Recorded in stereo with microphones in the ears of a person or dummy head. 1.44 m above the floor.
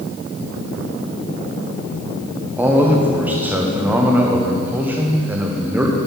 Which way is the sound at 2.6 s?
10° right (ahead or behind).